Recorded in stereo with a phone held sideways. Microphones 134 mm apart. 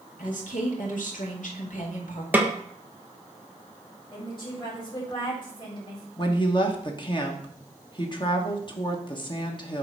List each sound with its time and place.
0.2 s a woman speaking: 75° left (ahead or behind), 2 m
2.3 s a snare drum: 10° right (ahead or behind), 1.0 m
4.1 s a woman speaking: 35° left (ahead or behind), 2.5 m
6.2 s a woman speaking: 35° left (ahead or behind), 1.1 m